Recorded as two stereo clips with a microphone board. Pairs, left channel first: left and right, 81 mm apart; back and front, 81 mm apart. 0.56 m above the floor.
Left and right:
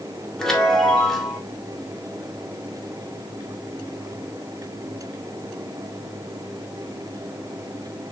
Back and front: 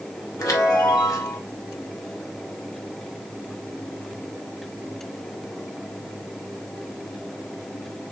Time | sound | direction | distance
0.4 | a chime | 170° left | 1.6 m